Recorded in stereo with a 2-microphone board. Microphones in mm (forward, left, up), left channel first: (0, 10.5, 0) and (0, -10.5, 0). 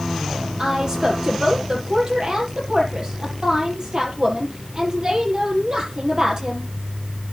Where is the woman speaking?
45° right (ahead or behind), 6 m.